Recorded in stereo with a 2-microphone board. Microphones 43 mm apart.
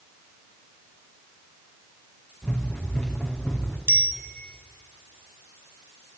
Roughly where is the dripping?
No dripping in this recording.